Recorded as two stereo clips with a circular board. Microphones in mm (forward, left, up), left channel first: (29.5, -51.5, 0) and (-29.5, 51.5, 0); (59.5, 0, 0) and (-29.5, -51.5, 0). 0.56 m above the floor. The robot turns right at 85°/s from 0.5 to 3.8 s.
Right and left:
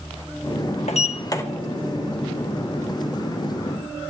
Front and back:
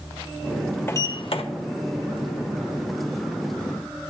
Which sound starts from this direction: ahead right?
A sliding door, at 0.9 s.